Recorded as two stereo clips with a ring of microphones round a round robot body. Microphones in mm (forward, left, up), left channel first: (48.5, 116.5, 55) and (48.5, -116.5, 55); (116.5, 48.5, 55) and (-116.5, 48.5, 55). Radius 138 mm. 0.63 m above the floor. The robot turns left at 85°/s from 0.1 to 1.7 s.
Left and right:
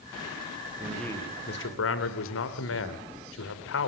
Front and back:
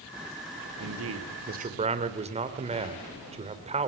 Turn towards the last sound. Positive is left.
turn(degrees=120)